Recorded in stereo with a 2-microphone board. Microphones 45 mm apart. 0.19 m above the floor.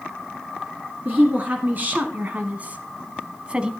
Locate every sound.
1.1 s a woman speaking: 45° right (ahead or behind), 1.7 m; by 3.7 s 20° right (ahead or behind), 1.2 m